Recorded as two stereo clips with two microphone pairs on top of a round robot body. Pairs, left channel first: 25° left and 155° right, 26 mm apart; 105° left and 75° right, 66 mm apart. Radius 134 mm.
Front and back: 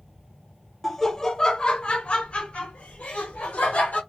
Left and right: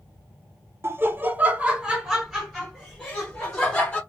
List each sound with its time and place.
0.8 s laughter: 55° right, 0.9 m; by 4.0 s 35° left, 1.8 m